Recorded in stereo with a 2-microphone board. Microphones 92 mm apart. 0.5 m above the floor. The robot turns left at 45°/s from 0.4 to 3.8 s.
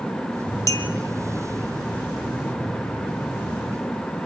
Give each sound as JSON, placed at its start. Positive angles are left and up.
{"t": 0.7, "sound": "a clink", "side_deg": 35, "distance_m": 1.7}